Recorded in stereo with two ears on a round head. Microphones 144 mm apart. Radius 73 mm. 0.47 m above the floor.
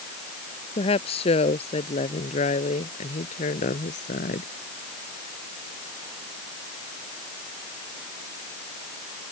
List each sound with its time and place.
0.8 s a woman speaking: 40° left (ahead or behind); by 4.5 s 55° left (ahead or behind)